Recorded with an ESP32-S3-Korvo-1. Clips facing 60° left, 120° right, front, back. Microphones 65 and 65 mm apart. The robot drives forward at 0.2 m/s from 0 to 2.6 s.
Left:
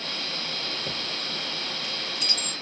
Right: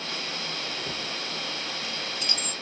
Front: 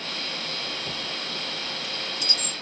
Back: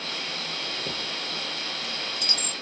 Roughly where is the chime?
Behind left.